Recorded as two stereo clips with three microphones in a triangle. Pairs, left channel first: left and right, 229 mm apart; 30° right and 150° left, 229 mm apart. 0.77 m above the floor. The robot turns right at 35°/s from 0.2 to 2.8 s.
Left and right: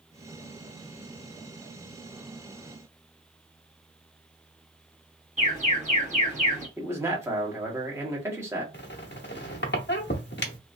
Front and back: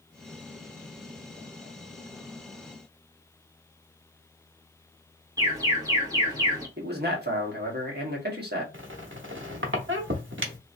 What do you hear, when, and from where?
5.4 s an alarm: 140° right, 1.4 m
6.8 s a man speaking: 165° right, 1.1 m
8.7 s a squeak: 125° left, 0.7 m